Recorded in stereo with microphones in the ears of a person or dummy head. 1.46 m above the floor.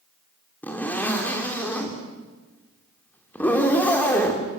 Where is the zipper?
15° left (ahead or behind), 3.5 m.